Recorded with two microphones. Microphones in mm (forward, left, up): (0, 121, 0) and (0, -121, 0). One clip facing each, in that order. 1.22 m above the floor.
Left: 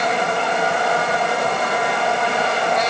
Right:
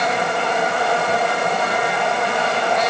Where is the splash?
I don't hear a splash.